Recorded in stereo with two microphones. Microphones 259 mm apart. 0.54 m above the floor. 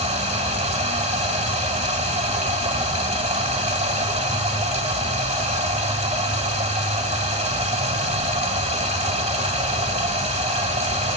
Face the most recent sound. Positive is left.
turn(degrees=-25)  # may be behind; listen again after turning